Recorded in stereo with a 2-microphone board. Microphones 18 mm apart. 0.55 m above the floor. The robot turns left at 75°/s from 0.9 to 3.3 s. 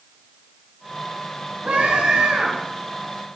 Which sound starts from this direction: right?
A scream, at 1.6 s.